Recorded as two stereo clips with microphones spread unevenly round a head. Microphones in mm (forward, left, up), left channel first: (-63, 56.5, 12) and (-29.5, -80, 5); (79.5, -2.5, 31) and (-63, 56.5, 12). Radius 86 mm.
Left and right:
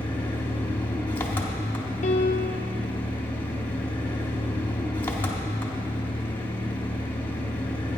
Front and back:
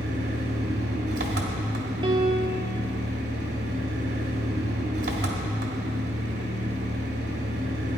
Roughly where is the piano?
Left.